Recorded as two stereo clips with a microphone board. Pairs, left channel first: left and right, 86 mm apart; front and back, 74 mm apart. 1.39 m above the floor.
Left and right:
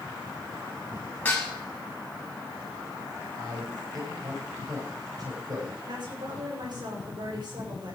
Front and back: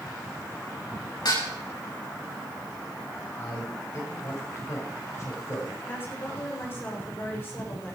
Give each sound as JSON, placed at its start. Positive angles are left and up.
{"t": 1.2, "sound": "dishes clattering", "azimuth_deg": 20, "distance_m": 7.5}
{"t": 3.4, "sound": "a man speaking", "azimuth_deg": -50, "distance_m": 7.0}
{"t": 5.8, "sound": "a woman speaking", "azimuth_deg": -60, "distance_m": 6.5}